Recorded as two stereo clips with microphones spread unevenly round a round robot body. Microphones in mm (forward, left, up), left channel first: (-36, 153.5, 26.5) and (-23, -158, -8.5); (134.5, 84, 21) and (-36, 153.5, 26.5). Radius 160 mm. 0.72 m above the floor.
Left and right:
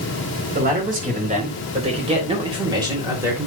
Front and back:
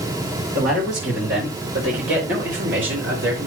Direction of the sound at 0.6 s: 150° right.